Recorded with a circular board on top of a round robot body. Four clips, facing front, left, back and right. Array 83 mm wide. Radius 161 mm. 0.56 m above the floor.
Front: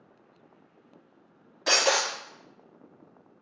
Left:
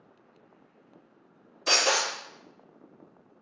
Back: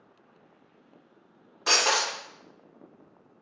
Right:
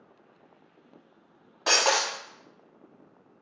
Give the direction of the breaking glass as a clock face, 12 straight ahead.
3 o'clock.